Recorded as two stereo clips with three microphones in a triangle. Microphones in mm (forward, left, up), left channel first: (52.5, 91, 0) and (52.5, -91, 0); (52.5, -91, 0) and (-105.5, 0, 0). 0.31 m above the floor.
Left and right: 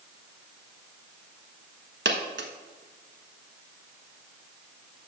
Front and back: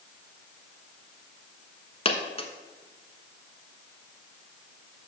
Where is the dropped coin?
90° right, 1.0 m.